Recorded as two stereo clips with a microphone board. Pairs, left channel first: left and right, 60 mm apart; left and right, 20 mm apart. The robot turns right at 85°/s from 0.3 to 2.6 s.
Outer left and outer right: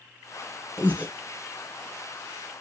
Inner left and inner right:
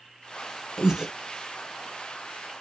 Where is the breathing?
30° right (ahead or behind), 0.7 m; by 1.1 s 20° right (ahead or behind), 0.7 m.